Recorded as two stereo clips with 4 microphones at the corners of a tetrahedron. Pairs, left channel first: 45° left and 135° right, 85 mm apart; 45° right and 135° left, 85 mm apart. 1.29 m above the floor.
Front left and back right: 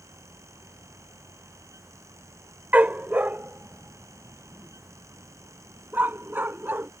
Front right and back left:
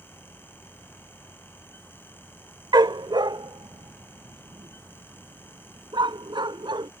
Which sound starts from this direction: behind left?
A dog barking, at 2.7 s.